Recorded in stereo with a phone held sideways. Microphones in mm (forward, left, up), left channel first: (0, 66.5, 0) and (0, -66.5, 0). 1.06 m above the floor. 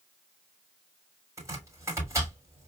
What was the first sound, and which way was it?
Chopping, 20° right (ahead or behind).